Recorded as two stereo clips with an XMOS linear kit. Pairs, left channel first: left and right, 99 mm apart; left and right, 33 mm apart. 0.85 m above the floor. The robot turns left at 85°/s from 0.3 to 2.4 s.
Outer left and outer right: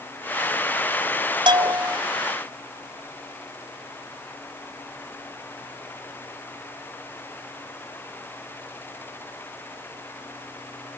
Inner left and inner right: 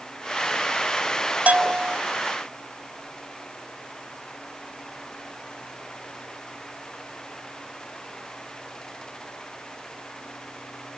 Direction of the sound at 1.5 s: 125° right.